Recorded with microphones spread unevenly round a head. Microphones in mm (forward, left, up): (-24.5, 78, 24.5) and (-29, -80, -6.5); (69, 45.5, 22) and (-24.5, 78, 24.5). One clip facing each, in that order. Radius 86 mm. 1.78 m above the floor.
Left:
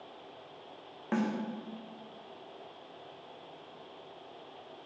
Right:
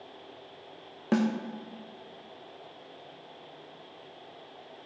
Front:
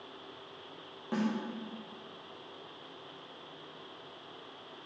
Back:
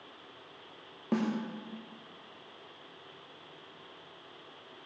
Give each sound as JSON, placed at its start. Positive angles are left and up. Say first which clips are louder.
{"t": 1.1, "sound": "a snare drum", "louder": "right 5 dB, back 2 dB", "azimuth_deg": -140, "distance_m": 0.6}